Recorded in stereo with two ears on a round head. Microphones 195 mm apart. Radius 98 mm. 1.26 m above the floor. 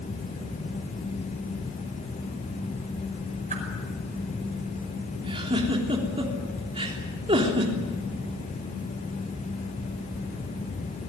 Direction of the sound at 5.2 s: 25° right (ahead or behind).